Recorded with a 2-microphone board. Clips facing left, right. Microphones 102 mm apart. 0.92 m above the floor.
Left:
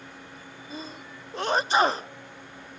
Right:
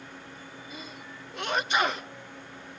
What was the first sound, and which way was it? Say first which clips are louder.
A sneeze: left 7 dB; 35° left (ahead or behind).